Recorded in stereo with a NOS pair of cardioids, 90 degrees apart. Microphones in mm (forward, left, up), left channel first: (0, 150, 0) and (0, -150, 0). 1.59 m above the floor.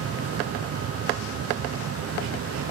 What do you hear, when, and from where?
0.0 s a fan: 50° right, 1.0 m